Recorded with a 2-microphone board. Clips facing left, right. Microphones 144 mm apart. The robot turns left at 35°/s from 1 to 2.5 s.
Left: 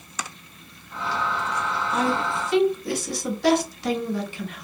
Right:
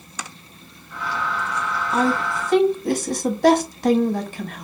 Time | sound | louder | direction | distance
1.9 | a woman speaking | right 4 dB | 30° right (ahead or behind) | 1.2 m